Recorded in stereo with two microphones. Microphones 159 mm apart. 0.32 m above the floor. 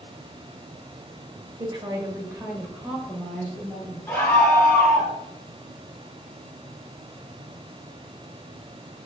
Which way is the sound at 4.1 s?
15° left (ahead or behind).